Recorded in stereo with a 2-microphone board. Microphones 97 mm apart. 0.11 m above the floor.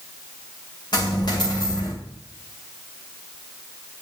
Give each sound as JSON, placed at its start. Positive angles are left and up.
{"t": 0.9, "sound": "a dropped coin", "side_deg": 45, "distance_m": 5.0}